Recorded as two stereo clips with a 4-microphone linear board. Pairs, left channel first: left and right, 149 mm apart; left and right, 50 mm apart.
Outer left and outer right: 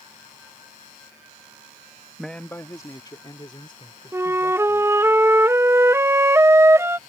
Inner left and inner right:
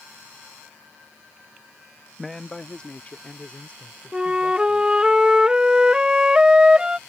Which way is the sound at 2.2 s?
Centre (ahead or behind).